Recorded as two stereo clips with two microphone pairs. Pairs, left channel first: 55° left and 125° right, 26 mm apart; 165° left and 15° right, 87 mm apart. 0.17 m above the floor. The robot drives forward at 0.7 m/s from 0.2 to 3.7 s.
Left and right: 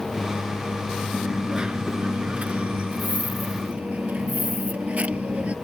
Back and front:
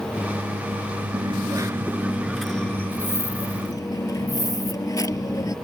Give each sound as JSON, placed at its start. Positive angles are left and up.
{"t": 1.1, "sound": "a dropped coin", "azimuth_deg": -45}